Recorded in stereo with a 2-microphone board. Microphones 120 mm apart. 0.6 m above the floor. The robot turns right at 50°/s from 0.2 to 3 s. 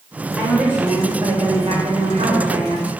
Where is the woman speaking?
Straight behind, 2 m; by 2.9 s 55° right, 2 m.